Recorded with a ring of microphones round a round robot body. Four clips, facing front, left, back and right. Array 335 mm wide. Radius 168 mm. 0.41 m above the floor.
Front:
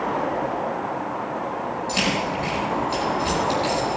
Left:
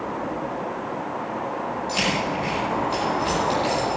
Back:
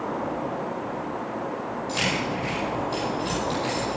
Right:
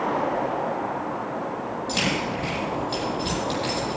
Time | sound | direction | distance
1.9 | keys jangling | 40° right | 9 m